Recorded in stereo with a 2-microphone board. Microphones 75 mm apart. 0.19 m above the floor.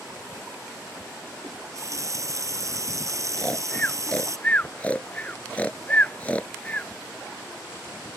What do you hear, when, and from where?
1.4 s a running tap: 45° right (ahead or behind)
3.4 s snoring: 20° left (ahead or behind)